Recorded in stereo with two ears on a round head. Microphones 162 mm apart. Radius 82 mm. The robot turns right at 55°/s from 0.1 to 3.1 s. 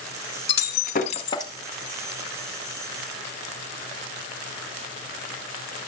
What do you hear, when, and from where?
0.5 s breaking glass: 75° left (ahead or behind), 1.6 m; by 1.5 s 20° left (ahead or behind), 1.6 m